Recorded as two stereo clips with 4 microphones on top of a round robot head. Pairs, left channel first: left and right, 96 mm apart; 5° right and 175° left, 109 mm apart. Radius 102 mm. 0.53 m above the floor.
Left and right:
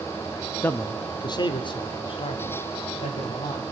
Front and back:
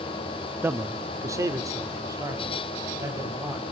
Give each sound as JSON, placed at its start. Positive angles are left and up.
{"t": 0.6, "sound": "a man speaking", "azimuth_deg": 135, "distance_m": 0.9}